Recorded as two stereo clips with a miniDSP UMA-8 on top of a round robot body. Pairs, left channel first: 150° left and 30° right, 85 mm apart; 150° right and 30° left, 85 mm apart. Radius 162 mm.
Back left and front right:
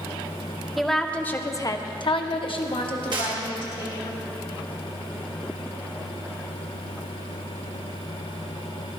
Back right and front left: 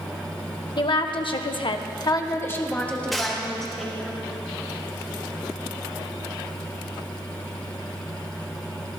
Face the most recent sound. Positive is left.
turn(degrees=-60)